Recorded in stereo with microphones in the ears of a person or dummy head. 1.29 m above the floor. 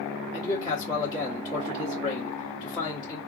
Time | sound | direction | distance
0.3 | a man speaking | 20° left (ahead or behind) | 1.7 m